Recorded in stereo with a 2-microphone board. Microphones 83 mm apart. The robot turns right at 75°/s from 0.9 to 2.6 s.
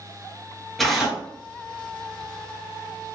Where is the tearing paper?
Centre (ahead or behind), 0.9 m; by 1.2 s 15° right (ahead or behind), 0.9 m.